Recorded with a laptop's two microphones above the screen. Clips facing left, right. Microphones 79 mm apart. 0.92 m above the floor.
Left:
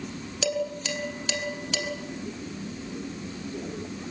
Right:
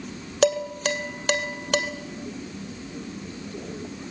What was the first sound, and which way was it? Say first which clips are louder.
Dishes clattering: right 7 dB; 50° right (ahead or behind).